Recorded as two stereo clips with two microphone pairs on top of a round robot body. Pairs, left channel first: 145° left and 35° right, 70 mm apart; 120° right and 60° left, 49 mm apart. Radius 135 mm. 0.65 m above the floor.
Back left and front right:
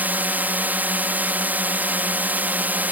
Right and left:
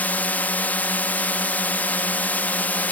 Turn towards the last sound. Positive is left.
turn(degrees=-90)